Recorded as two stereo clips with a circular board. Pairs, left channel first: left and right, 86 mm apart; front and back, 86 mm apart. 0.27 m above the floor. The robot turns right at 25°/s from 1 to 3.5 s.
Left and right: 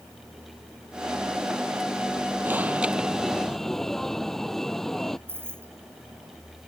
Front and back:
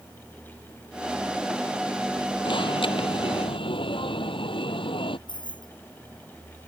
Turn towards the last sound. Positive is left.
turn(degrees=-25)